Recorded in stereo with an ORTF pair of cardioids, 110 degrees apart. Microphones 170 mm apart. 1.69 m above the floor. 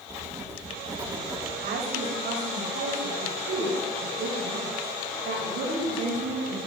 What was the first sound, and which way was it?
Writing, 20° right.